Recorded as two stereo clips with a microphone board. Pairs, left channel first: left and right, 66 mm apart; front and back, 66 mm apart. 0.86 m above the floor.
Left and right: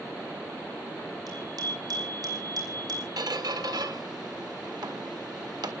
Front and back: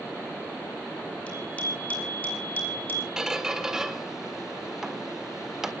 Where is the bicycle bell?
70° right, 7 m; by 3.1 s 65° right, 6.5 m.